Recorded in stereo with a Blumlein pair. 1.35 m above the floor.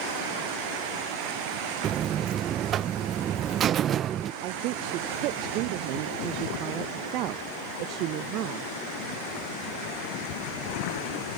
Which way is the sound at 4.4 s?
40° right.